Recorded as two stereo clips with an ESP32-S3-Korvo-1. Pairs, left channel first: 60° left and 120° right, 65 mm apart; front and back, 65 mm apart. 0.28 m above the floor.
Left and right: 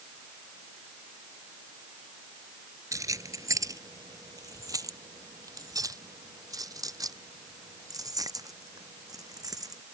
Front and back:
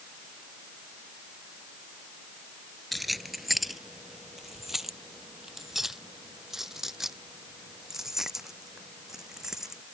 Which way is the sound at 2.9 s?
90° right.